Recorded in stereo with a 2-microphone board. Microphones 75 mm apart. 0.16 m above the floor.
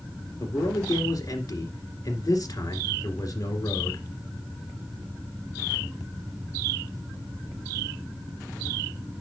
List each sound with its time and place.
0.4 s a man speaking: 55° left (ahead or behind), 2 m